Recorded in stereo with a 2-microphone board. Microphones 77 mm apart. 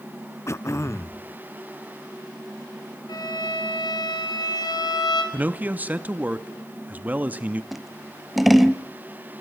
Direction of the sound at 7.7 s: Centre (ahead or behind).